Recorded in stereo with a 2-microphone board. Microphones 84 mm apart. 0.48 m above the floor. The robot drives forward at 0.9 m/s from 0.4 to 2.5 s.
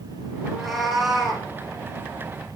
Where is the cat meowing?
Centre (ahead or behind), 3.5 m.